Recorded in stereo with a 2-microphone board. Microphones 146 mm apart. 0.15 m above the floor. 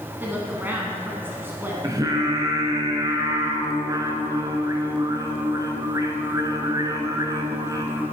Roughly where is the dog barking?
I don't hear a dog barking.